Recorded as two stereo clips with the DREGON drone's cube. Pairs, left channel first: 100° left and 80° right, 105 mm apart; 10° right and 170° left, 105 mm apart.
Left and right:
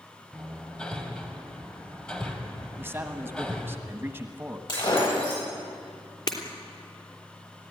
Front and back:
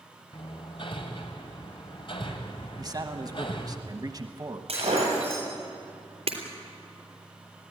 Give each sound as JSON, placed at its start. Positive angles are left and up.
{"t": 0.3, "sound": "hammering", "azimuth_deg": 20, "distance_m": 2.0}
{"t": 2.8, "sound": "a man speaking", "azimuth_deg": -145, "distance_m": 1.2}
{"t": 4.7, "sound": "breaking glass", "azimuth_deg": 145, "distance_m": 8.5}
{"t": 6.3, "sound": "breaking glass", "azimuth_deg": 145, "distance_m": 3.0}